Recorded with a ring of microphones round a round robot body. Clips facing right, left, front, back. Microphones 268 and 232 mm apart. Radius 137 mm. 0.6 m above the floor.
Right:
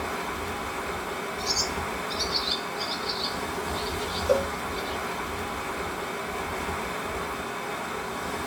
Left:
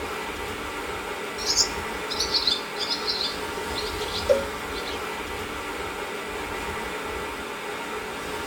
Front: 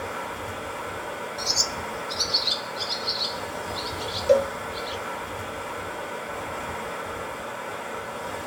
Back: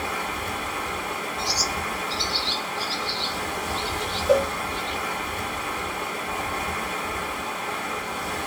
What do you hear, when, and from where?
0.0 s running water: 160° right, 0.9 m
1.4 s a bird: 35° left, 1.1 m
4.3 s a cowbell: 5° left, 0.5 m